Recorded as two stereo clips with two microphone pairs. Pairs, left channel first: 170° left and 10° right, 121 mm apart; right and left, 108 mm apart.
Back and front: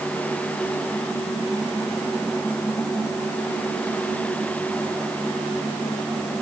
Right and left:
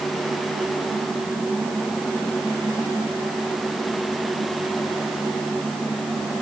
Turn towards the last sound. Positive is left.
No sound to turn to.